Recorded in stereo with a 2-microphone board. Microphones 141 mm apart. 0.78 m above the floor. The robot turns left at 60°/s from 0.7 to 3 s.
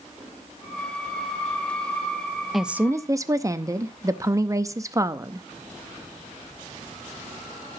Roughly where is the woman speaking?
Centre.